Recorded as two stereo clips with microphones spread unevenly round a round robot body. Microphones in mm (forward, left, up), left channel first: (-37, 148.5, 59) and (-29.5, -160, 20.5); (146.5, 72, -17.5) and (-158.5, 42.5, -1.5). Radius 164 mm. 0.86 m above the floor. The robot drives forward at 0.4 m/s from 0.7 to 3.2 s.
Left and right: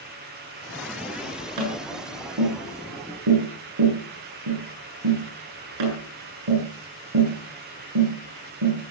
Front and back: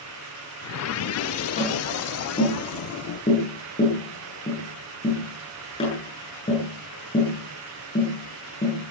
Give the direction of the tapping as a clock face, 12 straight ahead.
2 o'clock.